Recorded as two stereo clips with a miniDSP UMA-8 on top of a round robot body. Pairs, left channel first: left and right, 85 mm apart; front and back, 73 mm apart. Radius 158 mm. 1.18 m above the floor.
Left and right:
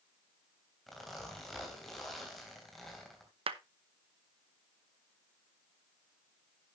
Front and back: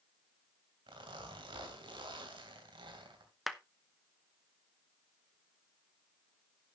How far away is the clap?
About 0.8 m.